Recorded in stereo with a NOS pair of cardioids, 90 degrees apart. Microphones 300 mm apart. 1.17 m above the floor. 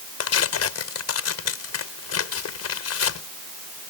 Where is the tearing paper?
55° left.